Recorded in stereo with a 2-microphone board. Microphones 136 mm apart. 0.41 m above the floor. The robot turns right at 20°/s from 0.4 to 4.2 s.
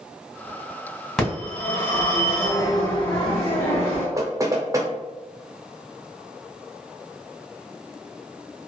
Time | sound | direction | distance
1.2 | a phone ringing | 5° left | 1.9 m
4.2 | knocking | 25° right (ahead or behind) | 0.6 m